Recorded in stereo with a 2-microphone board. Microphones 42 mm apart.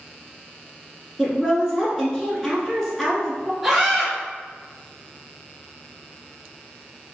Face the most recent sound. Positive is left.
turn(degrees=0)  # may be behind; listen again after turning